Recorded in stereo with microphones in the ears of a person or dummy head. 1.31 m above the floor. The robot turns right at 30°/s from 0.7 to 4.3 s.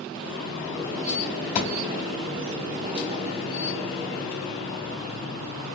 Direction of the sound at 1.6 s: 35° left (ahead or behind).